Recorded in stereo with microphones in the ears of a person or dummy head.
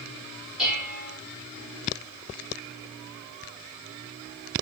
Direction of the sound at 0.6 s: Centre (ahead or behind).